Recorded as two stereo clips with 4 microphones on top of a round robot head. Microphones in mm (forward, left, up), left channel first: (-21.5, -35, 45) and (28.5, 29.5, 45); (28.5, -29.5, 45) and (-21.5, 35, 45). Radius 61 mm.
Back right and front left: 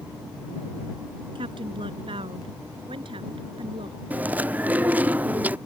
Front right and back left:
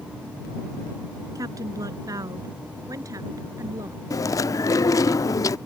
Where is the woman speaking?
80° left; by 4.0 s 75° left.